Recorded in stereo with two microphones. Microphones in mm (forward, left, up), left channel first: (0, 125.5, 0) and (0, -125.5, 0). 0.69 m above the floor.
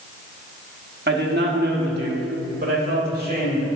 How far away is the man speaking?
About 1.2 m.